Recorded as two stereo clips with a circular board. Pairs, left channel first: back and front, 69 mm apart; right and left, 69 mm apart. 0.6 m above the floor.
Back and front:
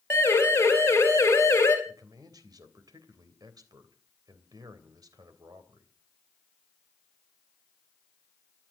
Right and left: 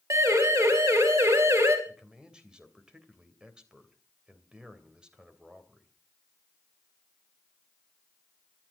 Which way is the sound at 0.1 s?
125° left.